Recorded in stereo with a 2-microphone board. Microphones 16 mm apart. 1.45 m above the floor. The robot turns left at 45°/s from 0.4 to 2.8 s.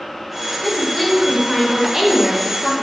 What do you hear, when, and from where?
0.6 s a woman speaking: 35° left, 1.2 m; by 2.8 s 65° right, 1.2 m